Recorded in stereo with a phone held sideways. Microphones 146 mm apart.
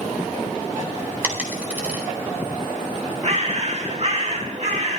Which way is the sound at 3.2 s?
55° right (ahead or behind).